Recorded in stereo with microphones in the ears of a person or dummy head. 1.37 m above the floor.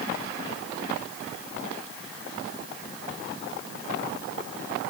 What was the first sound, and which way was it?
Only background noise.